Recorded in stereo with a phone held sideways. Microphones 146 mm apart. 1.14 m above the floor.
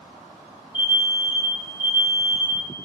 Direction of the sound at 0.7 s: 35° left (ahead or behind).